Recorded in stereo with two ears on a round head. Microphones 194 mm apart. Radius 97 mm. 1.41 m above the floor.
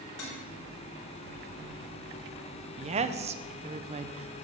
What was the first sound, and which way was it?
Dishes clattering, 75° left (ahead or behind).